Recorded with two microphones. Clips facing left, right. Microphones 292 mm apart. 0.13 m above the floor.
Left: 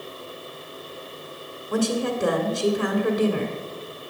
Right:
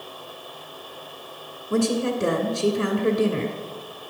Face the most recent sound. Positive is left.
turn(degrees=-30)  # may be behind; listen again after turning